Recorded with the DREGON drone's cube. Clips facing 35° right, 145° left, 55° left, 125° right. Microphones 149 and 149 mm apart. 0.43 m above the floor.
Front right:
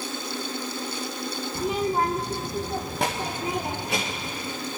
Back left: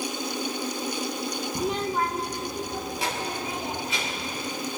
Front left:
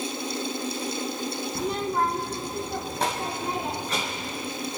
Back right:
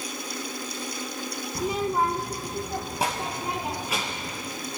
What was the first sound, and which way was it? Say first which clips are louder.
A child speaking: front right 3 dB, back right 2 dB; 155° left.